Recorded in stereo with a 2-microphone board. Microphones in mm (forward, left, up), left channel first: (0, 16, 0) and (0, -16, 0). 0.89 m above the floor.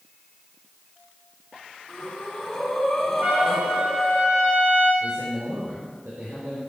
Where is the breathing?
5° left (ahead or behind), 3 m.